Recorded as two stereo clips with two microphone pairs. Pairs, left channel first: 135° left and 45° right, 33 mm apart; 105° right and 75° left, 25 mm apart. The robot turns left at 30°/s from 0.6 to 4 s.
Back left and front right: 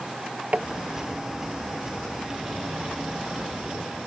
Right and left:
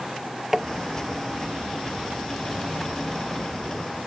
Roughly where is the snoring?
No snoring in this recording.